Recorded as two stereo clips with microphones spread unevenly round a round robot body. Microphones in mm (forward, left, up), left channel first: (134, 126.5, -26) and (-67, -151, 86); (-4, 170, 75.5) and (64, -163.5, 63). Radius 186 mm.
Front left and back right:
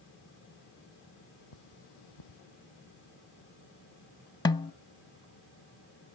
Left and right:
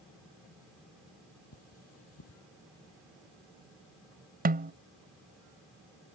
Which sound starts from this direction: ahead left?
Cutlery clinking, at 1.5 s.